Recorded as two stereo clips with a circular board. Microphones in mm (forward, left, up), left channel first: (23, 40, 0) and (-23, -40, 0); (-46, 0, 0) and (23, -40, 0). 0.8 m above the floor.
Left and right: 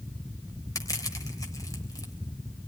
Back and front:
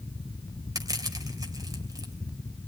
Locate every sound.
0.8 s crushing: 10° left, 3 m